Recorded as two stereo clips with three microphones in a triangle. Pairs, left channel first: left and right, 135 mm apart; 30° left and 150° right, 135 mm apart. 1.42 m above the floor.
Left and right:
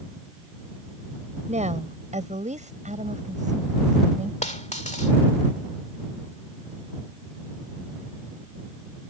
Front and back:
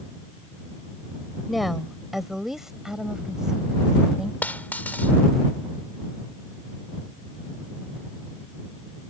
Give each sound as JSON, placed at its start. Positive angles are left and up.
{"t": 1.5, "sound": "a woman speaking", "azimuth_deg": -60}
{"t": 4.4, "sound": "a dropped coin", "azimuth_deg": 105}